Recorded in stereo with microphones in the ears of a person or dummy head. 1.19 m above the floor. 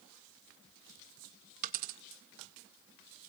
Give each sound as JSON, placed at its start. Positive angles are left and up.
{"t": 1.6, "sound": "a dropped coin", "side_deg": -50, "distance_m": 1.2}